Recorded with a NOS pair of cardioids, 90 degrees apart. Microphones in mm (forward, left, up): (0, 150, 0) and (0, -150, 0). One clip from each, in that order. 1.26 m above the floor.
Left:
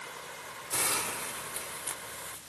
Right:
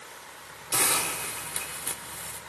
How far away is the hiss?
About 2.0 m.